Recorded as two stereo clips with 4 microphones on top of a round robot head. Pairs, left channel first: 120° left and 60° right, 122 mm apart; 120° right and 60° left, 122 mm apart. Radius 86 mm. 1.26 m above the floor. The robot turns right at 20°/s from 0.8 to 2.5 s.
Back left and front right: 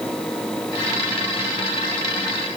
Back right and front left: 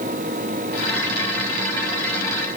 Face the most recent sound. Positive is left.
No sound to turn to.